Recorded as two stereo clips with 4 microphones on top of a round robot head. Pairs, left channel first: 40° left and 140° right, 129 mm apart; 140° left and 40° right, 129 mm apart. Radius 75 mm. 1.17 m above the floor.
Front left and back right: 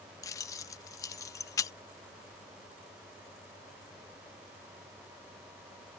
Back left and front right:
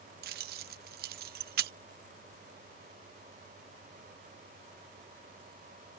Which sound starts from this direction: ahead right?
Keys jangling, at 0.2 s.